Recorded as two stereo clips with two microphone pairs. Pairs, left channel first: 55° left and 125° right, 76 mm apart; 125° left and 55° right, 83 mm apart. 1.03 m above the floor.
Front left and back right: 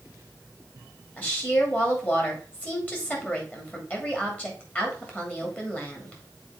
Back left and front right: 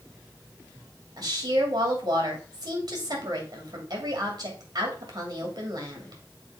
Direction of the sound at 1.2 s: 15° right.